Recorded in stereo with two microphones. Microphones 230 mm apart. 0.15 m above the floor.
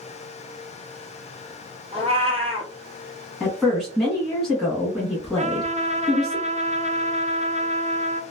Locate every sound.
1.9 s a cat meowing: 25° right (ahead or behind), 1.2 m
3.4 s a woman speaking: centre (ahead or behind), 1.3 m
5.4 s a trumpet: 30° right (ahead or behind), 0.6 m